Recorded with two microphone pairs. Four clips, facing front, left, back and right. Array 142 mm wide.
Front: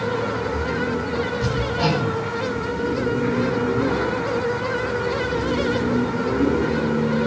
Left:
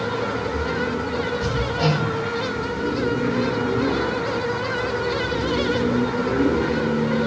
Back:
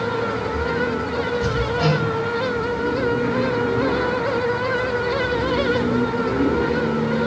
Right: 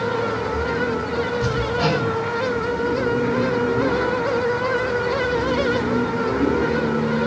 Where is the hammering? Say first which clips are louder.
Right 1 dB, back 2 dB; 115° right, 6.5 m.